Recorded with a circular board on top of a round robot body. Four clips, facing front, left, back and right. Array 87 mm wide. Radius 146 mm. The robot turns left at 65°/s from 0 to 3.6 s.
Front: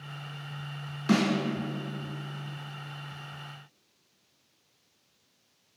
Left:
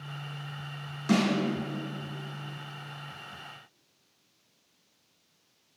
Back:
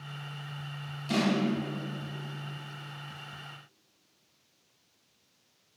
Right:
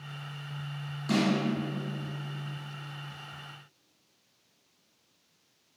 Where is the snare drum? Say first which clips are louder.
Left 2 dB, front 3 dB; 15° left, 3.5 m; by 1.3 s 5° left, 3.5 m.